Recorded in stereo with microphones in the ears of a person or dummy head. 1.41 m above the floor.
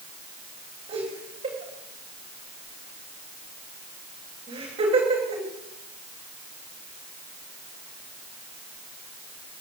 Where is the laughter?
40° right (ahead or behind), 9.5 m.